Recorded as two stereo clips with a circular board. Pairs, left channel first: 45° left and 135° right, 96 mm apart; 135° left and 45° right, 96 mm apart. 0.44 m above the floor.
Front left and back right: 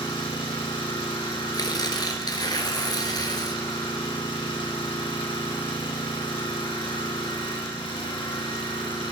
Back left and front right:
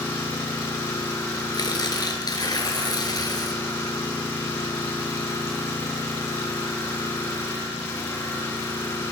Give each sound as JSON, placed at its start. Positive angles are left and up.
{"t": 0.0, "sound": "an engine running", "azimuth_deg": 75, "distance_m": 2.5}
{"t": 1.5, "sound": "tearing paper", "azimuth_deg": 90, "distance_m": 1.4}